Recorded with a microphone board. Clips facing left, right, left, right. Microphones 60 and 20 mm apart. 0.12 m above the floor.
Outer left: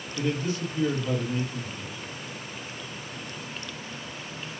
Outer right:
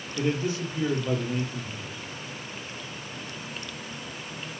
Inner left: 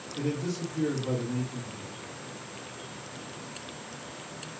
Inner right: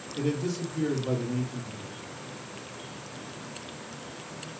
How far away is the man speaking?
About 3.5 m.